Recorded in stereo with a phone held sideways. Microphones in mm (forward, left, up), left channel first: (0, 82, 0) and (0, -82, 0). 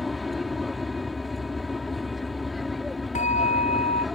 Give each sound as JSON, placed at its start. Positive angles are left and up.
{"t": 0.0, "sound": "an aircraft", "side_deg": 0}
{"t": 3.1, "sound": "a bell", "side_deg": 50}